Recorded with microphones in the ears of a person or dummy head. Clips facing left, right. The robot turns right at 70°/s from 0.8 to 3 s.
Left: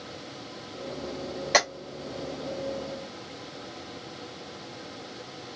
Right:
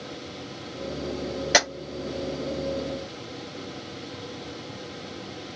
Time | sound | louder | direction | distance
1.5 | tapping | right 1 dB | 10° right (ahead or behind) | 1.1 m